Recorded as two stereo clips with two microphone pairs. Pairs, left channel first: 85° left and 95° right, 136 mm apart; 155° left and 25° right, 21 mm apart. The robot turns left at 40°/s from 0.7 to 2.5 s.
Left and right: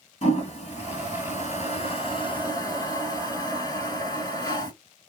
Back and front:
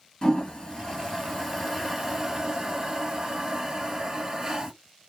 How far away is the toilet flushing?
About 2.5 m.